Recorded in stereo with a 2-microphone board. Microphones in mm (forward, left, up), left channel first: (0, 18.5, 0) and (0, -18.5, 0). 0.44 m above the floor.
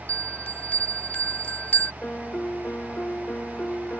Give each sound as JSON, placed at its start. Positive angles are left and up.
{"t": 0.1, "sound": "a bell", "side_deg": 45}
{"t": 2.0, "sound": "a piano", "side_deg": 50}